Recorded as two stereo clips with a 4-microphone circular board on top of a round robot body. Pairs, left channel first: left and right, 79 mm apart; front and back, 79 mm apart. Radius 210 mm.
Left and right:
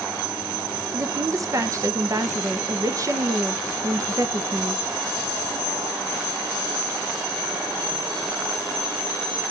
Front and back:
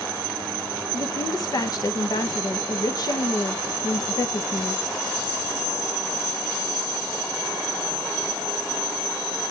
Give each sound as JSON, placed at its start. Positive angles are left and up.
{"t": 0.9, "sound": "a woman speaking", "azimuth_deg": -40, "distance_m": 1.0}